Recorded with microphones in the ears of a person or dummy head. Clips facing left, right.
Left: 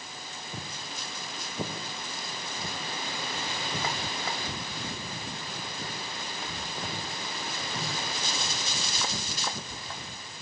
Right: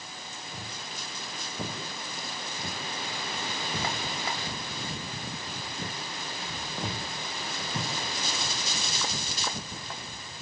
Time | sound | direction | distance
0.5 | footsteps | 20° left (ahead or behind) | 4.5 m